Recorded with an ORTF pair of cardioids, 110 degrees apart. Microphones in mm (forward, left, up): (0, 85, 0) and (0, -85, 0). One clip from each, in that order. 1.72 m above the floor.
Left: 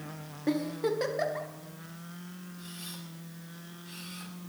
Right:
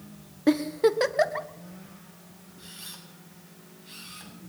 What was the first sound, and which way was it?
A giggle, 45° right.